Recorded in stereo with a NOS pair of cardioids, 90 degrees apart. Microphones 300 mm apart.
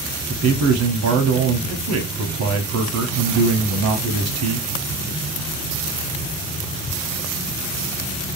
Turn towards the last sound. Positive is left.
turn(degrees=-60)